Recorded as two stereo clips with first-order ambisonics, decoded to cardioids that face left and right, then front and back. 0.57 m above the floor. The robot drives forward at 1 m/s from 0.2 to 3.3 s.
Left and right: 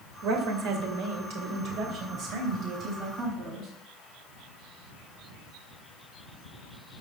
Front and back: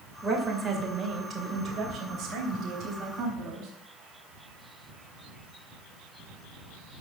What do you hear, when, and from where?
0.2 s a woman speaking: 90° right, 2.5 m; by 3.7 s 145° right, 4 m